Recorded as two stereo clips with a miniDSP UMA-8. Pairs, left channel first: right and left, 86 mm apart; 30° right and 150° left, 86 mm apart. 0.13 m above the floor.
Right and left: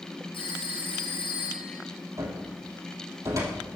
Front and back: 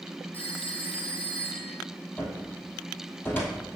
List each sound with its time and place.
0.3 s a phone ringing: 100° right, 3.5 m
2.2 s a cupboard door: 40° left, 2.5 m